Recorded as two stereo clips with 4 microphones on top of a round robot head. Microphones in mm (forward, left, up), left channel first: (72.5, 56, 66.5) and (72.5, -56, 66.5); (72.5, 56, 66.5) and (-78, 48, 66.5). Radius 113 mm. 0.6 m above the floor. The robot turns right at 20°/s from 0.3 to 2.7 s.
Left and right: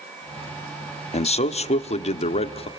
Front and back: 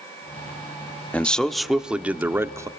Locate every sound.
1.1 s a man speaking: 85° left, 1.2 m; by 2.7 s 115° left, 1.2 m